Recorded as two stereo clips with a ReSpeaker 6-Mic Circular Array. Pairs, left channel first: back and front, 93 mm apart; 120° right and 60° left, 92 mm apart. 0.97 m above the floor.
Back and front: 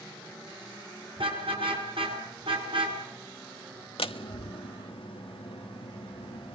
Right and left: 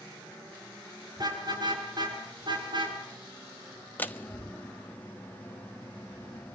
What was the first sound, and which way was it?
A car horn, 20° left.